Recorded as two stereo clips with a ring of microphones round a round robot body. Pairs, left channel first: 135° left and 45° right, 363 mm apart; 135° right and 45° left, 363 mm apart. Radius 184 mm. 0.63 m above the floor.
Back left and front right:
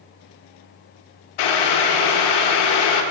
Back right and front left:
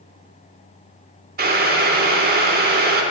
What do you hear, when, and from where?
1.4 s boiling: 110° left, 0.9 m